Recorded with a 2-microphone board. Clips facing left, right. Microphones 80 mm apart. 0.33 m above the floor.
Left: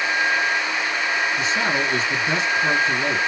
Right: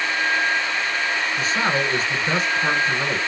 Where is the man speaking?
40° right (ahead or behind), 1.7 m.